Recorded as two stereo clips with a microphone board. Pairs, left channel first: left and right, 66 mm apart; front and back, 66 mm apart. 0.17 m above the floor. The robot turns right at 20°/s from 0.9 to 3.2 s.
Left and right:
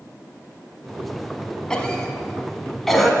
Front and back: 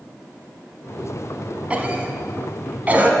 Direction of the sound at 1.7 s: 150° left.